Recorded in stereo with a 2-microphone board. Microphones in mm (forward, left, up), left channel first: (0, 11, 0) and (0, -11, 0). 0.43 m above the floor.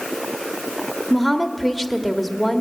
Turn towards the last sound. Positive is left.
turn(degrees=0)  # may be behind; listen again after turning